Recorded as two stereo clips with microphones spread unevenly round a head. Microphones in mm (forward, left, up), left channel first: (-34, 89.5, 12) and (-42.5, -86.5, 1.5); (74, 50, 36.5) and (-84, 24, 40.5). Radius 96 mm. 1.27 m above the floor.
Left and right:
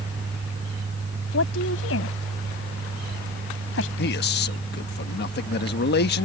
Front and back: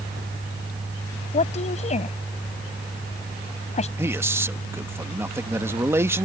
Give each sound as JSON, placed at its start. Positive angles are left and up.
{"t": 1.3, "sound": "a woman speaking", "azimuth_deg": 55}
{"t": 4.0, "sound": "a man speaking", "azimuth_deg": 115}